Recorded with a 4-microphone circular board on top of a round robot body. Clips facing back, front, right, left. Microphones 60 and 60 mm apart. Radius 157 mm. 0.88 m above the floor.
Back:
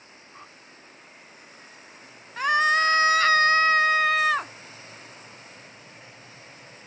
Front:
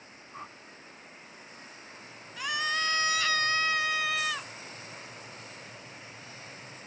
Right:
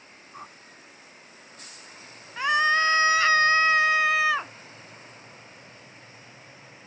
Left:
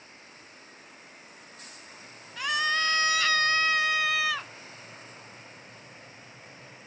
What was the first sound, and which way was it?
A whoosh, 75° right.